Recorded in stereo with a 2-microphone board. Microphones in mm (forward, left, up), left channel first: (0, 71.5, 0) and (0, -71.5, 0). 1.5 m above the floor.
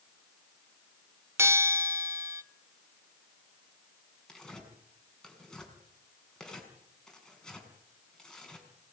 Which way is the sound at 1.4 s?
20° right (ahead or behind).